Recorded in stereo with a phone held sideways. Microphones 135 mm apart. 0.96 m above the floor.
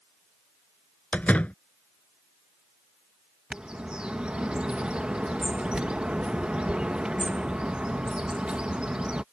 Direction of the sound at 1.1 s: 10° left (ahead or behind).